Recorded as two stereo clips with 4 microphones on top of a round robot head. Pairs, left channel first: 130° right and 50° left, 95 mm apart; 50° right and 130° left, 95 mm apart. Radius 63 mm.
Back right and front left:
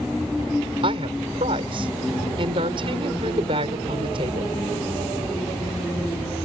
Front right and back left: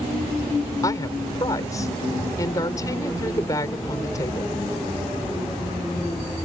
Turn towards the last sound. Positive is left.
turn(degrees=10)